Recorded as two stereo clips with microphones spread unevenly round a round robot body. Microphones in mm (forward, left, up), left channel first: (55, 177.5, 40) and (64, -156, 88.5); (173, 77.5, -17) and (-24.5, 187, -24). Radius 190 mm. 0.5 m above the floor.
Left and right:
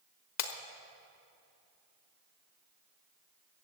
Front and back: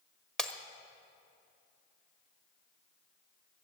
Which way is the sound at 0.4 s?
60° left.